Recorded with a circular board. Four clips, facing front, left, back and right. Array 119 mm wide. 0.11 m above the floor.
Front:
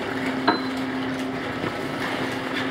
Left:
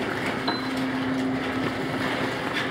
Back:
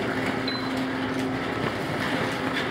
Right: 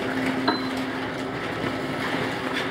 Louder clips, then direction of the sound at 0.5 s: Right 3 dB, front 8 dB; 10° right.